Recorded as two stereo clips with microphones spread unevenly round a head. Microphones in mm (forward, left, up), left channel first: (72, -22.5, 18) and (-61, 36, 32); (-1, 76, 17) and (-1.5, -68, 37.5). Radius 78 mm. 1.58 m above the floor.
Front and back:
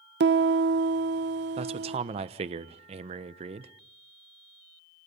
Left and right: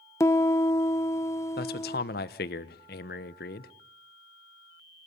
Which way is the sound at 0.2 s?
160° left.